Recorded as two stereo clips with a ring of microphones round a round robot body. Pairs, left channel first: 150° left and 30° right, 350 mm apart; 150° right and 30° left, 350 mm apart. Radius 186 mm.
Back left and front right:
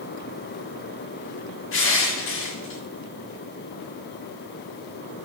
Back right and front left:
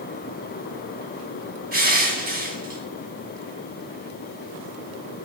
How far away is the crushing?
About 1.8 m.